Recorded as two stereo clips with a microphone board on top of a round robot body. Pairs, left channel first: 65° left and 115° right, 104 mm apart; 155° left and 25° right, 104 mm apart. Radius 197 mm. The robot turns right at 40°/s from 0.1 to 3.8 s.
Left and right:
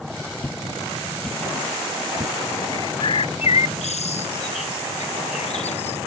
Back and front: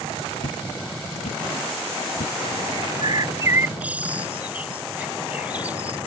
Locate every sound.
0.4 s footsteps: 140° left; by 2.4 s straight behind
2.7 s a bird: 10° left; by 6.0 s 55° left